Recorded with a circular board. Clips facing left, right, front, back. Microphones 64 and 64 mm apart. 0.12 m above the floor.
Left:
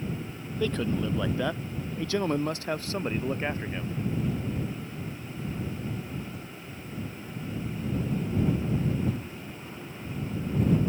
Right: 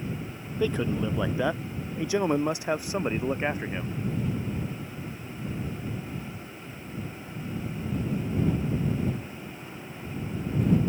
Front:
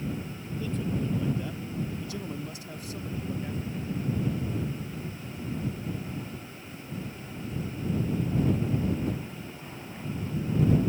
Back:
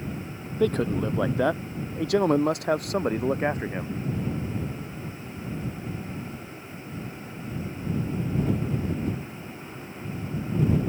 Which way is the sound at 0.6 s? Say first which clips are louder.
Right 1 dB, back 8 dB; 165° right.